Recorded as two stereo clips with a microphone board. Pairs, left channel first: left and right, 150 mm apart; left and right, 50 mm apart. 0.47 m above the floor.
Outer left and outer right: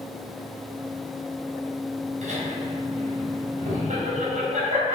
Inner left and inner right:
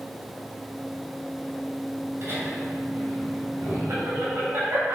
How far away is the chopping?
No chopping in this recording.